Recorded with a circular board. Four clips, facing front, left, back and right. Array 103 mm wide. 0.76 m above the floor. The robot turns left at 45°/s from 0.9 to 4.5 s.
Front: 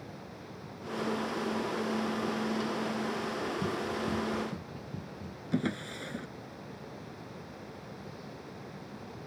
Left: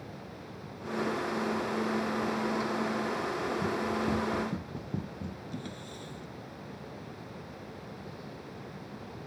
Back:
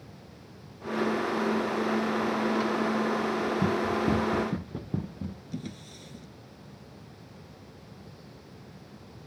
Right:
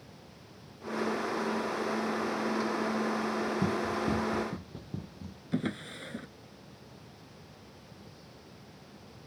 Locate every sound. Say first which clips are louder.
3.6 s running footsteps: even, back 7 dB; 145° right; by 5.4 s 160° left
5.5 s a drawer: right 7 dB, front 7 dB; 35° right